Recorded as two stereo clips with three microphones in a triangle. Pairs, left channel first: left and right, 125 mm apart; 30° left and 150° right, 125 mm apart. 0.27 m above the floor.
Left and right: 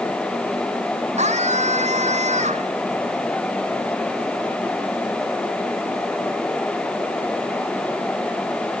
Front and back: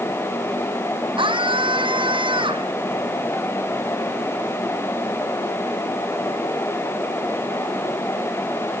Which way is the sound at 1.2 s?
105° right.